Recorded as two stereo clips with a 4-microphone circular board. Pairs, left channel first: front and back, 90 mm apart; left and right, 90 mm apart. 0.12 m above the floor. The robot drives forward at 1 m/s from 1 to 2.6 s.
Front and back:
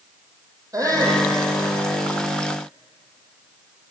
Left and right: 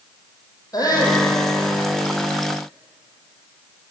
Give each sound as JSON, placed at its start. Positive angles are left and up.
{"t": 0.7, "sound": "a shout", "azimuth_deg": 135, "distance_m": 5.0}